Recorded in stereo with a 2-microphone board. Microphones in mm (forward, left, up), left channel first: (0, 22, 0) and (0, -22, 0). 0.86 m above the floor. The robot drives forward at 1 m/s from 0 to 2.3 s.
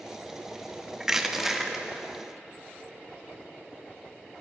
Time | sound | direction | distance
1.0 | crushing | 10° right (ahead or behind) | 0.7 m